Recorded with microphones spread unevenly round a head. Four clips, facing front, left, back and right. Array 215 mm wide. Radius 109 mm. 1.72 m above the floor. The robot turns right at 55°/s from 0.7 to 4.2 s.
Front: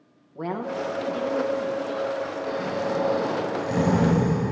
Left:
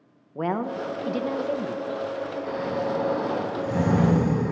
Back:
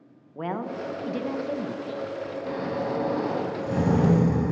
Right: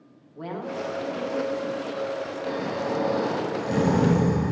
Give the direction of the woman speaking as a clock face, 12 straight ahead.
9 o'clock.